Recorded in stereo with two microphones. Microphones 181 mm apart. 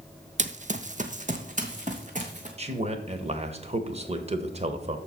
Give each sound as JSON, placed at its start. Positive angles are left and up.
{"t": 0.4, "sound": "running footsteps", "side_deg": -40, "distance_m": 0.5}
{"t": 2.6, "sound": "a man speaking", "side_deg": -35, "distance_m": 1.0}